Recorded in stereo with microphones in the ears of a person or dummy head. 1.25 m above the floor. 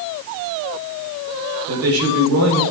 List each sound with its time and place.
1.7 s a man speaking: 85° right, 4.5 m